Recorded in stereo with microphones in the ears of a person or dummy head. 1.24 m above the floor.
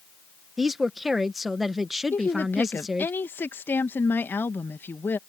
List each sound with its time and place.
0.6 s a woman speaking: 5° right (ahead or behind)
2.1 s a woman speaking: 10° left (ahead or behind)